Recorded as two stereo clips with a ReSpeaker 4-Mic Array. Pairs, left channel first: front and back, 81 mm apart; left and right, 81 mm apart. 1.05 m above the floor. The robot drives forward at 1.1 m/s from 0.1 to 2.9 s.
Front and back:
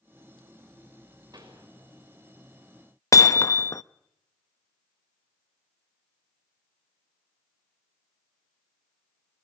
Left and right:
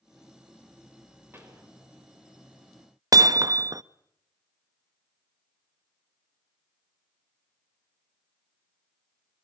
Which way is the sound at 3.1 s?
50° right.